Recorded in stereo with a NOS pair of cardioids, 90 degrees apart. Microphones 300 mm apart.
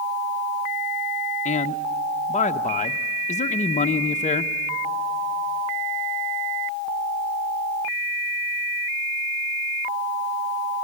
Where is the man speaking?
25° left, 0.8 m.